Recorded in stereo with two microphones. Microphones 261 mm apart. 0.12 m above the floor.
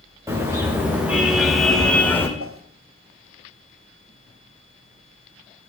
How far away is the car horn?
About 5.5 m.